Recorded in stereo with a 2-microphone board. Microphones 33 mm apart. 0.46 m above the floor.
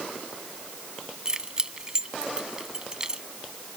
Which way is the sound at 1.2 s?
20° right (ahead or behind).